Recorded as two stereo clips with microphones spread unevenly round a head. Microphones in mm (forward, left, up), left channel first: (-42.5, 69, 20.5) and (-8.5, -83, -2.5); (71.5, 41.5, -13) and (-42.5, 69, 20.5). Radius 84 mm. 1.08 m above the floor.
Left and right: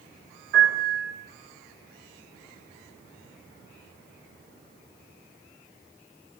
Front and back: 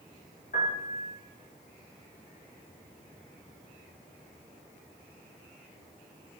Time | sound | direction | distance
0.5 | a piano | 50° right | 2.5 m